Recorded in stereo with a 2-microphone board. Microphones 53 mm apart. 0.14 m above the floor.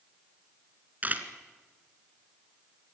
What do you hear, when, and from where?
1.0 s a camera shutter: 35° right (ahead or behind), 1.8 m